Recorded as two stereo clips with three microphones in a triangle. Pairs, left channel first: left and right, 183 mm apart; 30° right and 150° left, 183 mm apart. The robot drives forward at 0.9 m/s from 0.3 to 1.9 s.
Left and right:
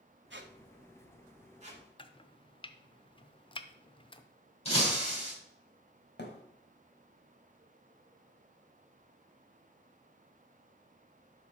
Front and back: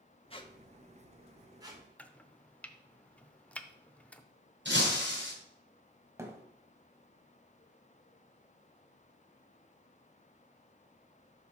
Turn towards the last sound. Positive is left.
turn(degrees=75)